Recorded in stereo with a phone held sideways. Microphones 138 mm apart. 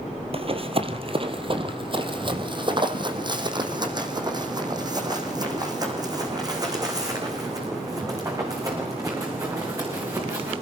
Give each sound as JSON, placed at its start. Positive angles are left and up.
{"t": 0.3, "sound": "running footsteps", "side_deg": -45, "distance_m": 2.0}